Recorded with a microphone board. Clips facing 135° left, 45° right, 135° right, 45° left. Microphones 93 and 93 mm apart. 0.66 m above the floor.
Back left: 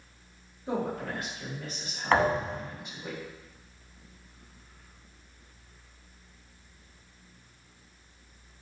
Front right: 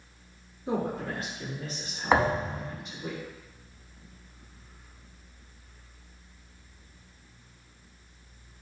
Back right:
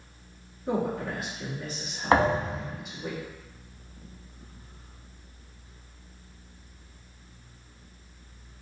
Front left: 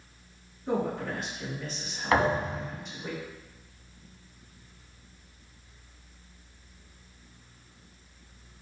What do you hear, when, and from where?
0.7 s a woman speaking: 60° right, 1.2 m
2.1 s a thud: 110° right, 0.6 m